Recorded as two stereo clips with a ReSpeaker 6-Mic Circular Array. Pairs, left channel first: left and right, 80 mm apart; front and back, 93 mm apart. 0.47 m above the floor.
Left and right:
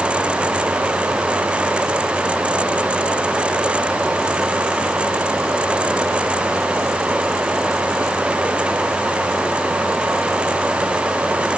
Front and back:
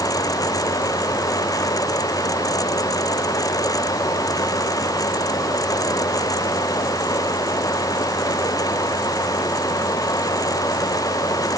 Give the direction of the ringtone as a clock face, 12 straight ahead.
No ringtone in this recording.